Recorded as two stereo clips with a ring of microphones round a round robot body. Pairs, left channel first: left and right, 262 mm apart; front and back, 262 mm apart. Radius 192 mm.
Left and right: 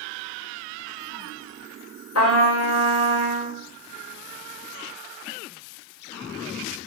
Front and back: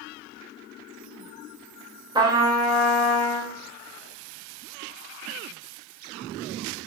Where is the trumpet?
105° left, 2.5 m.